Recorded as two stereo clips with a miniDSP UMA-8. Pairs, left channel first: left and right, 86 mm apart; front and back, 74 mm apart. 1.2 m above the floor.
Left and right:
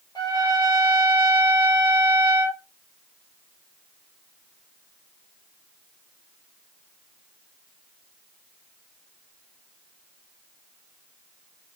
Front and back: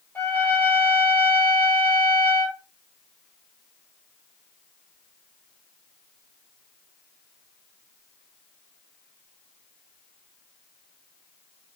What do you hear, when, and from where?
0.1 s a trumpet: 65° left, 1.1 m